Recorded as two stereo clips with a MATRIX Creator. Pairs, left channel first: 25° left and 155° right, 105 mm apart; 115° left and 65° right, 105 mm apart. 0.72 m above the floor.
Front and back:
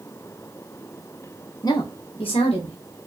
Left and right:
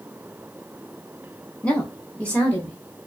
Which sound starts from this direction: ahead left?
A woman speaking, at 1.6 s.